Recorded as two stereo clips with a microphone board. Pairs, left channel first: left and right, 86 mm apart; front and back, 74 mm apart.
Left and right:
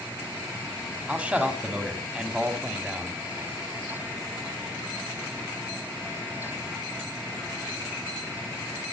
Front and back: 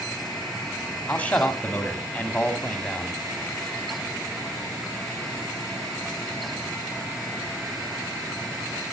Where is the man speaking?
40° right, 1.6 m.